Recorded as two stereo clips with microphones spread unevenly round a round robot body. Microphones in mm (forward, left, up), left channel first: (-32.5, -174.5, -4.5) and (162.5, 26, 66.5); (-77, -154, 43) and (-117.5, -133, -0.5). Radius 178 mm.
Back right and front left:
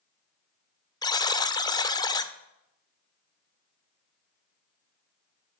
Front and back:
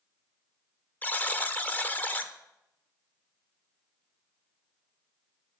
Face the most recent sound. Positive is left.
turn(degrees=-50)